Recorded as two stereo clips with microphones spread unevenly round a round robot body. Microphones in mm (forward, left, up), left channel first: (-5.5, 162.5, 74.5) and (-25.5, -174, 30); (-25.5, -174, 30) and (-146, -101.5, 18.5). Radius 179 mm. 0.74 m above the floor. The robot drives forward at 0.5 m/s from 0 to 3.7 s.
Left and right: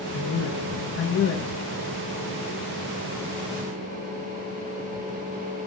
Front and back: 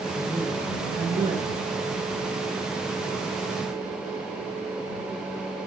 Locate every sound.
0.1 s a man speaking: 50° left, 1.1 m; by 1.4 s 115° left, 1.0 m